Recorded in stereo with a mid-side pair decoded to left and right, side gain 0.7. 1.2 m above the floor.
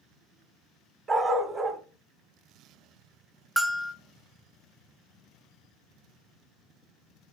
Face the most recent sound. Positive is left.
turn(degrees=-10)